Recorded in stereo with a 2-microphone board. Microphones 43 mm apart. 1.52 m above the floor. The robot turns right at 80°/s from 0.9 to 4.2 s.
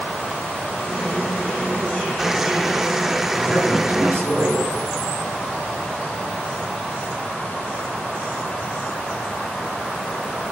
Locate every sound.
3.3 s a man speaking: 175° left, 1.1 m; by 4.7 s 115° right, 1.1 m